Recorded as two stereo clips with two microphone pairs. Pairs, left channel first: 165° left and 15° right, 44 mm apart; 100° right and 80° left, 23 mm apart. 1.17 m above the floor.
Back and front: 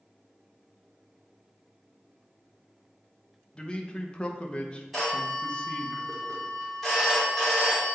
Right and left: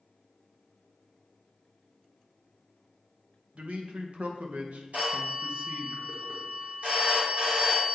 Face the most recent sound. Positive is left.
turn(degrees=80)